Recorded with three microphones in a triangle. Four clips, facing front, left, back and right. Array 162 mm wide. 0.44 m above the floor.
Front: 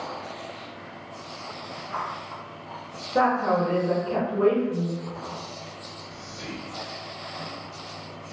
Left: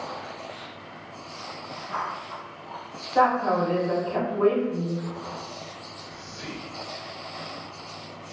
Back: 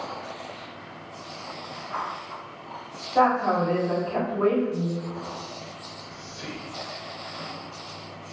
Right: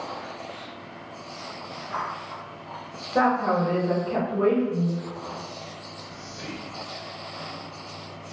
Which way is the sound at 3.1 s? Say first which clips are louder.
Left 1 dB, back 1 dB; 55° right.